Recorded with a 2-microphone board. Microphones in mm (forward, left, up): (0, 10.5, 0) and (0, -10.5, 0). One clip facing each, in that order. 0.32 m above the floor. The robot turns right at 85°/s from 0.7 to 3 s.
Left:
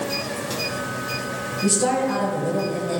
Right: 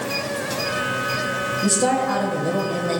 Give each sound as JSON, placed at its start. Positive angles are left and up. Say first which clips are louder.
{"t": 1.6, "sound": "a woman speaking", "louder": "even", "azimuth_deg": -170, "distance_m": 1.4}